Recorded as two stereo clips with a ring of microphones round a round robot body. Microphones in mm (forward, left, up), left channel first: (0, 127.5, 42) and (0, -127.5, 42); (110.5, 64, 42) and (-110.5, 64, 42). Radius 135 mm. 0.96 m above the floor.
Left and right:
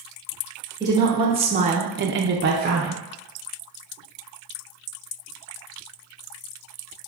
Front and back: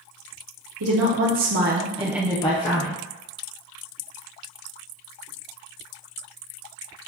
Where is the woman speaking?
165° right, 1.5 m; by 3.0 s 30° right, 1.0 m.